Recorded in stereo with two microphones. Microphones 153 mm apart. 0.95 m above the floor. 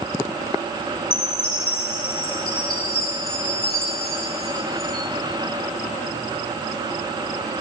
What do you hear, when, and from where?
1.1 s a chime: 75° left (ahead or behind), 1.6 m